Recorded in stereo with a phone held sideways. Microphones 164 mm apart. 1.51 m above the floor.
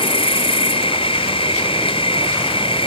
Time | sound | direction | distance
0.0 | an insect | 35° left (ahead or behind) | ?